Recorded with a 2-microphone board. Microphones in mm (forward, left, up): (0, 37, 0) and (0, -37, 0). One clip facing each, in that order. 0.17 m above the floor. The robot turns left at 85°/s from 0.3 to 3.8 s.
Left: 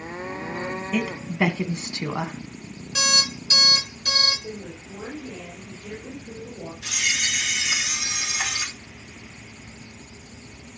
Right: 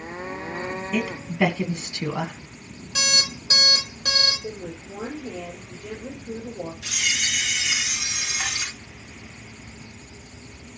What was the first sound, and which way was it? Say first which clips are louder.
A woman speaking: even; centre (ahead or behind).